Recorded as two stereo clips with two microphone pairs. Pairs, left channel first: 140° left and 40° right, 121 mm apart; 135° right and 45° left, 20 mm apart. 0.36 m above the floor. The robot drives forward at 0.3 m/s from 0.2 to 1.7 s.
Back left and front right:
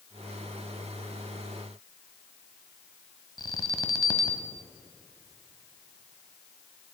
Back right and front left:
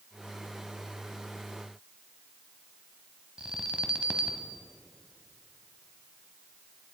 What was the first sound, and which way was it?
An alarm, 80° left.